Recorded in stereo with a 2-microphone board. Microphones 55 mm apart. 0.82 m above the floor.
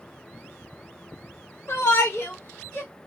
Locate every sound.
1.7 s a shout: 50° left (ahead or behind), 0.7 m; by 2.9 s 35° left (ahead or behind), 1.2 m